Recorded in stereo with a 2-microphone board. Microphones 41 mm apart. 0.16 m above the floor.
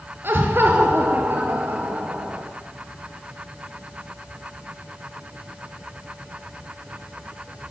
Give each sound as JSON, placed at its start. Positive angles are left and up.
{"t": 0.2, "sound": "laughter", "side_deg": -55, "distance_m": 2.0}